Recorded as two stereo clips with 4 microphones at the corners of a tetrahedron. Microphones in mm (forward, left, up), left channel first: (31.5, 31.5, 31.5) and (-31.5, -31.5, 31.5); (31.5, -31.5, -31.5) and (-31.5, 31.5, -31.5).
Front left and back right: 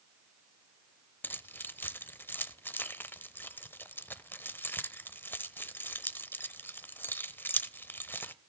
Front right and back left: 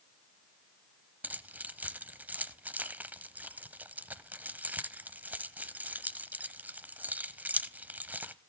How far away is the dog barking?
No dog barking in this recording.